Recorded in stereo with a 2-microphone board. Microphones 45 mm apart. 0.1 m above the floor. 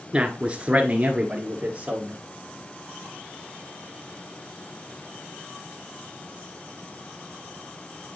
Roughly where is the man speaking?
Right.